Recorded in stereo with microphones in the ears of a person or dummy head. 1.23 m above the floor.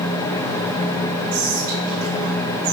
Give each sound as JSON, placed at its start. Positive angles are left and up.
{"t": 1.3, "sound": "whispering", "side_deg": -55, "distance_m": 2.0}